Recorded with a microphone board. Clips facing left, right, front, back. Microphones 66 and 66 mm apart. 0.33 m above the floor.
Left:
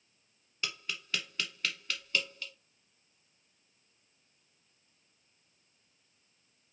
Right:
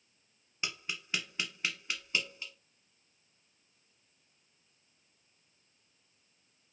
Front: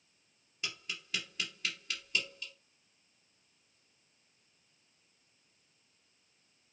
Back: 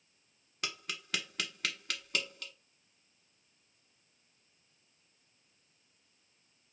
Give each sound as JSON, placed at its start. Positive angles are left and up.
{"t": 0.6, "sound": "tapping", "azimuth_deg": -160, "distance_m": 1.1}